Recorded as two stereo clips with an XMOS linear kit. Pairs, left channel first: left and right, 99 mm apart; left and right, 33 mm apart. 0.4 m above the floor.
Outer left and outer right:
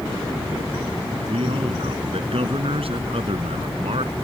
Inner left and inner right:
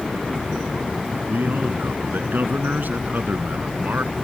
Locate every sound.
1.3 s a man speaking: 75° right (ahead or behind)